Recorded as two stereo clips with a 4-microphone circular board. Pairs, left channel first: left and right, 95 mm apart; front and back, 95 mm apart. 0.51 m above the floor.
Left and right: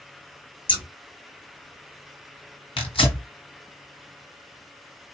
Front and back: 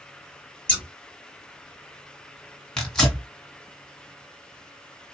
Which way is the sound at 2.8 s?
85° left.